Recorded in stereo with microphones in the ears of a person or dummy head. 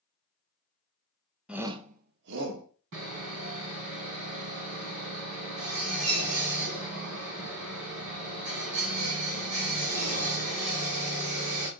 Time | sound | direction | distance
1.5 | a shout | 5° right (ahead or behind) | 0.7 m
2.9 | sawing | 65° right (ahead or behind) | 2 m